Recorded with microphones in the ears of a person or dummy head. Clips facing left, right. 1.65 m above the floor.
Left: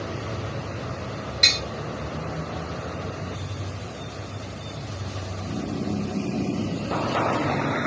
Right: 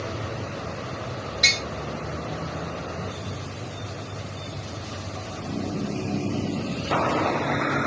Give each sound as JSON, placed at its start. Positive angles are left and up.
{"t": 1.4, "sound": "tapping", "side_deg": 40, "distance_m": 1.3}